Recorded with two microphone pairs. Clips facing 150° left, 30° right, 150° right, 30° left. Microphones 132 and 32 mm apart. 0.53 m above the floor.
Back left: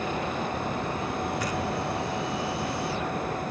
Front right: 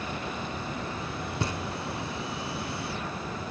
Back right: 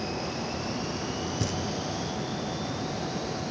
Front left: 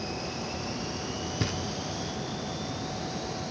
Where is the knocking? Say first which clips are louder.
Back left 4 dB, back right 2 dB; 15° left, 0.9 m.